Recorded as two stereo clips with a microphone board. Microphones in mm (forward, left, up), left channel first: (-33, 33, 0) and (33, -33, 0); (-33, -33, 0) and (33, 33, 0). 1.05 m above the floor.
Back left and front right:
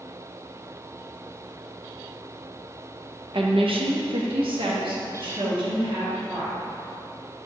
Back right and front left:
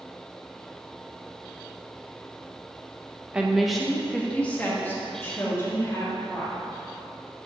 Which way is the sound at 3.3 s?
30° right.